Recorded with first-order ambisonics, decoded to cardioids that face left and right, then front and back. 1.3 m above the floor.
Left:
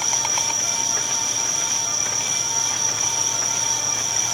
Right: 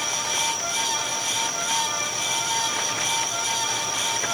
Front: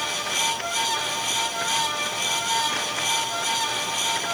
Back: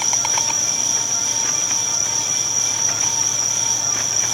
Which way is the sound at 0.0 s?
155° left.